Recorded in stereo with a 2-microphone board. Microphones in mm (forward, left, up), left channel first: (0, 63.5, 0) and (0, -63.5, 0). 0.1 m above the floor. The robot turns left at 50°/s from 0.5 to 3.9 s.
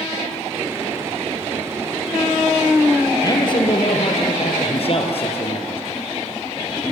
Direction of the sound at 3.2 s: 145° left.